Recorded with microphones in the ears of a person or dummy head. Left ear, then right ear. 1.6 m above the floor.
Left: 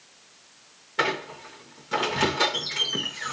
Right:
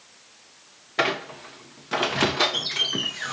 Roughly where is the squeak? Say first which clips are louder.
Right 2 dB; centre.